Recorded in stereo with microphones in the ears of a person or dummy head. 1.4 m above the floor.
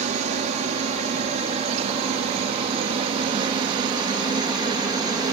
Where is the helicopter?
45° right (ahead or behind); by 5.3 s 25° right (ahead or behind).